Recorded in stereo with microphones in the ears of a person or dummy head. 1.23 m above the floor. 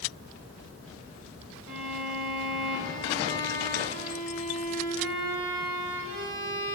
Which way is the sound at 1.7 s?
75° right (ahead or behind).